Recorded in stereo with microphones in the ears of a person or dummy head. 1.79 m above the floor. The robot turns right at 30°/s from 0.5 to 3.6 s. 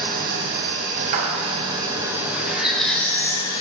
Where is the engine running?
65° right, 0.9 m; by 3.6 s 30° left, 0.9 m.